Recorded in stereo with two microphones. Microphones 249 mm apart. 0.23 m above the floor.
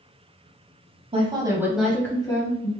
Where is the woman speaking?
25° right (ahead or behind), 1.1 m; by 2.7 s 30° left (ahead or behind), 1.2 m.